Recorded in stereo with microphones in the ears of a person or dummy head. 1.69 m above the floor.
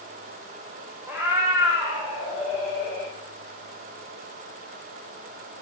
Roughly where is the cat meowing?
Centre.